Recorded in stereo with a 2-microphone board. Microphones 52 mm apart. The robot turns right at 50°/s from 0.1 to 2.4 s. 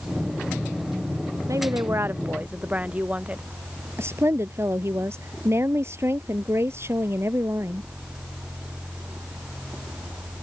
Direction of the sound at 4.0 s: 50° right (ahead or behind).